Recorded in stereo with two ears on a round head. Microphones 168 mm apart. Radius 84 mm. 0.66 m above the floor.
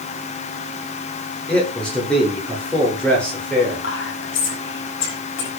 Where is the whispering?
75° left (ahead or behind), 5 m.